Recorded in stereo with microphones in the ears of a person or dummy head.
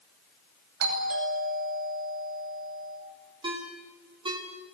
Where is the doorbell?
55° right (ahead or behind), 10 m.